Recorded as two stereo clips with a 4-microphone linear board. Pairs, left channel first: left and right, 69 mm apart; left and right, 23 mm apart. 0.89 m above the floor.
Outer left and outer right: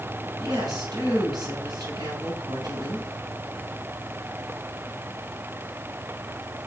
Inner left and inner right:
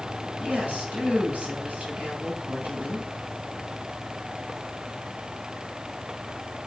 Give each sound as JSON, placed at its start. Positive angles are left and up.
{"t": 0.4, "sound": "a woman speaking", "side_deg": -85, "distance_m": 5.0}